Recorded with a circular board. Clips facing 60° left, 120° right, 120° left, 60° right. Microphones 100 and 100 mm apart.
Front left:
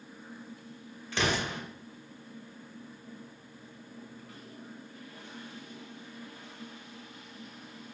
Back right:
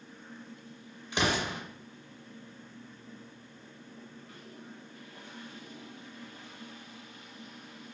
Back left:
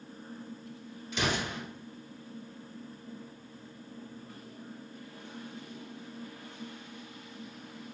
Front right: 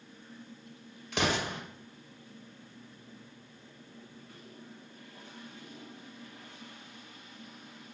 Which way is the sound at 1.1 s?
50° right.